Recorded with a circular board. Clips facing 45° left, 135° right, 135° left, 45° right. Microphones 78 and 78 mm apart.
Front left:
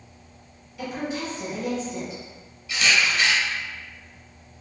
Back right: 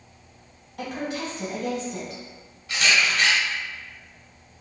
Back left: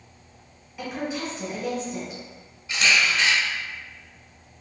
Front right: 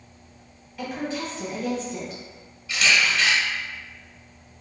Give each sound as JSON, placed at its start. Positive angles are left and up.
{"t": 0.8, "sound": "a woman speaking", "azimuth_deg": -145, "distance_m": 1.3}
{"t": 2.7, "sound": "a camera shutter", "azimuth_deg": -165, "distance_m": 1.1}